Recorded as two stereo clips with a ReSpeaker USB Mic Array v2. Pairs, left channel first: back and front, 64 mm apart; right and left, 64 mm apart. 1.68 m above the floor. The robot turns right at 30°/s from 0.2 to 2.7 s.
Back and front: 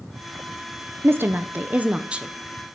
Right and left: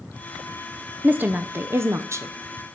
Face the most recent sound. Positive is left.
turn(degrees=85)